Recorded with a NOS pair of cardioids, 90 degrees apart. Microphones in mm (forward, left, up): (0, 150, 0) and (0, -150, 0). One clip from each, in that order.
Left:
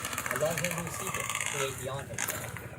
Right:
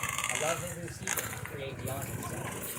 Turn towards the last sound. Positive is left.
turn(degrees=55)